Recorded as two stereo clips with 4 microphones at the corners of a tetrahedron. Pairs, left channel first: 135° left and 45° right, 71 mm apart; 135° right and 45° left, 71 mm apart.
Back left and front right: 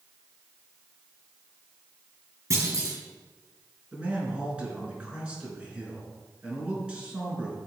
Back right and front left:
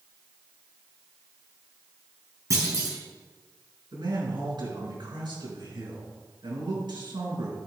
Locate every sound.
2.5 s a clunk: straight ahead, 4 m
3.9 s a man speaking: 30° left, 5 m